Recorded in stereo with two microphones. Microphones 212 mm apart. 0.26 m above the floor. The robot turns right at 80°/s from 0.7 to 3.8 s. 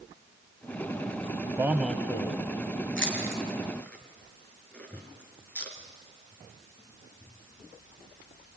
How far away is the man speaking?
About 1.1 m.